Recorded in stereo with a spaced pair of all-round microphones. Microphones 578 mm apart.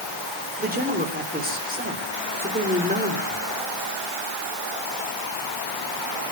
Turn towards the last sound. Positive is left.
turn(degrees=-15)  # may be behind; listen again after turning